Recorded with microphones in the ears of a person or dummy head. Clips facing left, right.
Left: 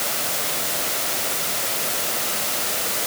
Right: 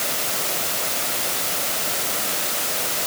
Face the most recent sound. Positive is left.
No sound to turn to.